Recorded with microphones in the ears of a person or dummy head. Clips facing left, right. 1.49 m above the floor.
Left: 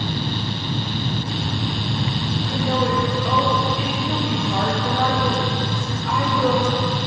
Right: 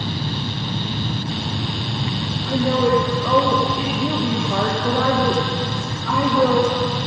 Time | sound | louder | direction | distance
2.5 | a woman speaking | right 6 dB | 70° right (ahead or behind) | 1.8 m